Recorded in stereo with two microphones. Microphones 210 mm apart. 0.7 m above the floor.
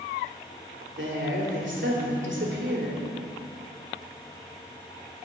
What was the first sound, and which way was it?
A woman speaking, 60° right (ahead or behind).